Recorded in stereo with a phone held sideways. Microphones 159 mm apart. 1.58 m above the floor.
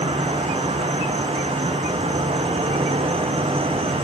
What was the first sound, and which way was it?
An insect, 40° right (ahead or behind).